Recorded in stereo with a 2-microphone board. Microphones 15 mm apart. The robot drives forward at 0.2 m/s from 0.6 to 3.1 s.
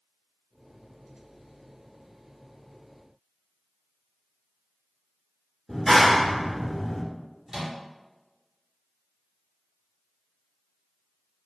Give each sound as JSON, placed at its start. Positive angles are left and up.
{"t": 5.7, "sound": "a clap", "side_deg": 5, "distance_m": 1.1}
{"t": 7.5, "sound": "a microwave", "side_deg": -35, "distance_m": 1.7}